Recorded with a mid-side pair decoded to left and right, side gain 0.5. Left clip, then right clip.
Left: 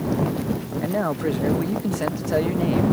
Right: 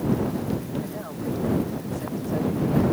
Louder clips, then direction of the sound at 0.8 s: Left 9 dB; 70° left.